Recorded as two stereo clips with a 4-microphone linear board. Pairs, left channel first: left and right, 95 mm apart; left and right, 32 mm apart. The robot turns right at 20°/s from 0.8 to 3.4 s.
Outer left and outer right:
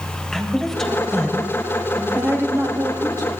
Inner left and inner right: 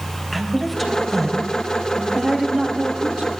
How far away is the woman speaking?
About 3 m.